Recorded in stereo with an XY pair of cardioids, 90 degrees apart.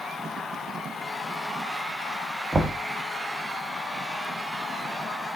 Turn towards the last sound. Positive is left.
turn(degrees=-25)